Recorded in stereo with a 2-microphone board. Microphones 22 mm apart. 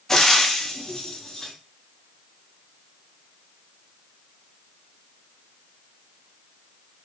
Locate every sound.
0.1 s frying: 25° left (ahead or behind), 0.6 m